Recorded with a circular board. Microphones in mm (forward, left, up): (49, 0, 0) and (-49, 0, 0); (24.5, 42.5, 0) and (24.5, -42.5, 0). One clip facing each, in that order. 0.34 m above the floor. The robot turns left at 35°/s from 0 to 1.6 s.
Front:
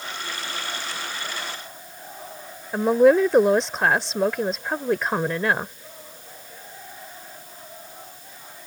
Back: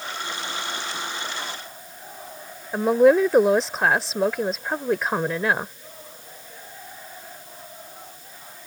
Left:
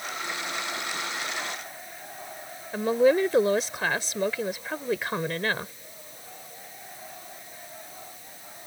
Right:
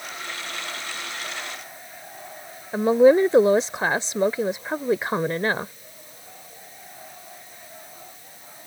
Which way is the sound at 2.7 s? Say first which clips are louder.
Even, right 6 dB; 95° right.